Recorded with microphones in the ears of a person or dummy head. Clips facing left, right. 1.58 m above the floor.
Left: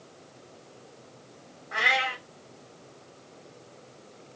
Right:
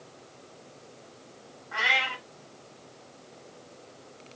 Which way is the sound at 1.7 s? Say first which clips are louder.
Left 3 dB; 35° left (ahead or behind).